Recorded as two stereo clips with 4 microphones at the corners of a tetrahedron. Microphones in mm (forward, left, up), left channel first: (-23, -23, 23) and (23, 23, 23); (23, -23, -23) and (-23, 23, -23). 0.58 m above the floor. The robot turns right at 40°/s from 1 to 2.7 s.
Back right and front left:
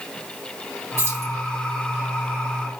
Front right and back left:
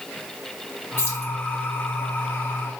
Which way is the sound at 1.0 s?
Straight ahead.